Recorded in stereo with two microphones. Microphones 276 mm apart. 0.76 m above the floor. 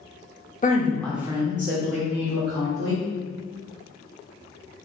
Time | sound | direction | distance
0.6 | a woman speaking | 30° left (ahead or behind) | 0.8 m